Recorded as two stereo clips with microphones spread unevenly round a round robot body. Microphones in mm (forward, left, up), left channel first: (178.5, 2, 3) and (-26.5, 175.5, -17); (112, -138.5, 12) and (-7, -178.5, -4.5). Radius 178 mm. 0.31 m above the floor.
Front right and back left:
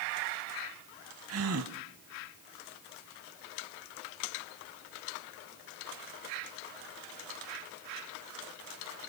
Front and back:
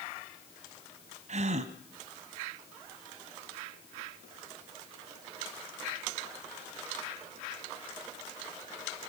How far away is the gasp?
About 1.2 m.